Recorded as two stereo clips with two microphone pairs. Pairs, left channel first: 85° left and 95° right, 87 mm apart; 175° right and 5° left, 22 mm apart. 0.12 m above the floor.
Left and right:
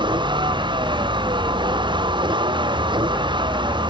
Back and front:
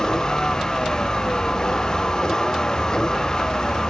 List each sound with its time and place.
0.0 s a vehicle: 115° right